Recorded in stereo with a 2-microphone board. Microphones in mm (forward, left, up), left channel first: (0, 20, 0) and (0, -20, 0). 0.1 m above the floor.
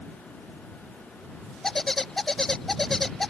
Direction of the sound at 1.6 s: 10° left (ahead or behind).